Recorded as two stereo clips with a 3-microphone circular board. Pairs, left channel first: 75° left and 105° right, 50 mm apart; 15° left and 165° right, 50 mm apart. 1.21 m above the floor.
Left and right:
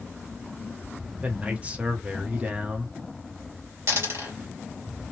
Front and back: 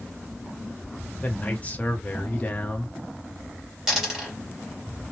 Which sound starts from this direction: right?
A dropped coin, at 3.9 s.